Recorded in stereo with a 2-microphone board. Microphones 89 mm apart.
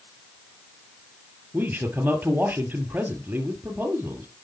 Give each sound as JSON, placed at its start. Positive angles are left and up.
{"t": 1.5, "sound": "a man speaking", "side_deg": -20, "distance_m": 2.5}